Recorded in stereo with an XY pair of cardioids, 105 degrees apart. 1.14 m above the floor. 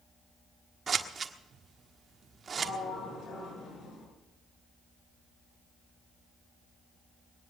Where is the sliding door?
50° left, 7.5 m.